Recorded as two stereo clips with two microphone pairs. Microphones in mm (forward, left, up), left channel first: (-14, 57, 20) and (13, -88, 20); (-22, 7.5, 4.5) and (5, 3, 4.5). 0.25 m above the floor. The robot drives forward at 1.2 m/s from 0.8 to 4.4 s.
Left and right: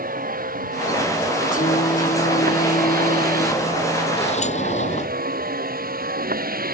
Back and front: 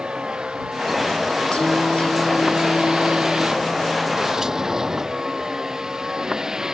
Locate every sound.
0.0 s a vehicle: 65° right; by 6.7 s 75° right
1.5 s singing: 125° left; by 4.2 s 140° left
4.2 s a sliding door: 55° left; by 5.1 s 60° left